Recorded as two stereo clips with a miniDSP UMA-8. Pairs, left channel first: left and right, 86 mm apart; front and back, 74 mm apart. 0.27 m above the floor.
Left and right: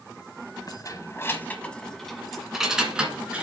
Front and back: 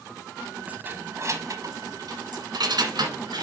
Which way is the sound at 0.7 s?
115° left.